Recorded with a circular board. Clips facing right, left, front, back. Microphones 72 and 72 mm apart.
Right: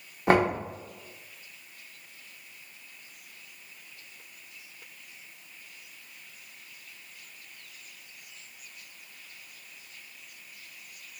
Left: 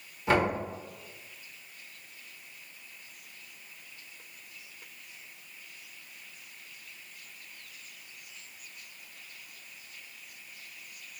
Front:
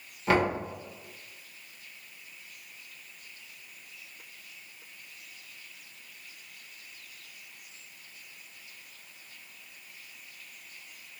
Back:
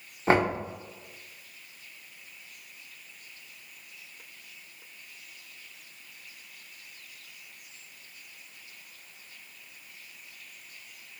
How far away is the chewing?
I don't hear chewing.